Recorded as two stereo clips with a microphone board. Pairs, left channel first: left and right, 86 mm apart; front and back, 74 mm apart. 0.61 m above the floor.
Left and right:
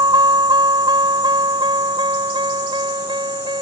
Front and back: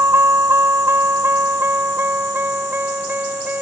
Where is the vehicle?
125° right; by 3.6 s 115° right.